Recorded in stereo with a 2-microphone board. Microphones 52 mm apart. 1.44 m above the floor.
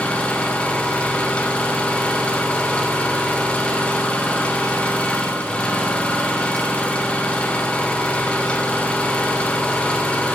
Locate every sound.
0.0 s an engine running: 25° left (ahead or behind), 2 m